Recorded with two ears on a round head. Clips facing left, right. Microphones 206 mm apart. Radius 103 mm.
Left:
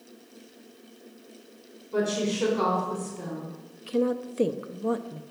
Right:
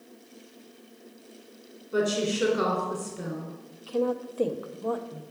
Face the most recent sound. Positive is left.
turn(degrees=30)  # may be behind; listen again after turning